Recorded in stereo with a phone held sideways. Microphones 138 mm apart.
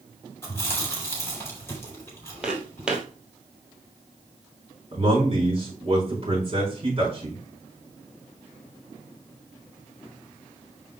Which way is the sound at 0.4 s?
20° left (ahead or behind).